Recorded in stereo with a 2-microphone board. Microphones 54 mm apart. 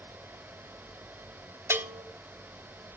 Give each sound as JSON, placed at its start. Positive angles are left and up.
{"t": 1.7, "sound": "a bell", "side_deg": -50, "distance_m": 1.4}